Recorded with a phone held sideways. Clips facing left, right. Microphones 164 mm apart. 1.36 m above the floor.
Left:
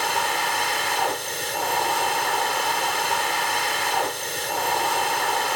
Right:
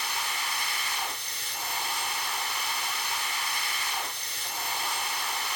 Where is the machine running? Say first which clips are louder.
Left 11 dB; 80° left.